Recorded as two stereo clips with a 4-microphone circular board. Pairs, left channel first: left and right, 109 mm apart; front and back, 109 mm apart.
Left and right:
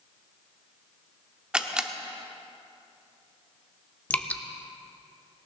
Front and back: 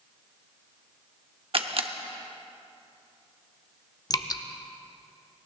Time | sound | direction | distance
1.5 | a camera shutter | 170° right | 0.8 m
4.1 | dripping | 25° left | 0.6 m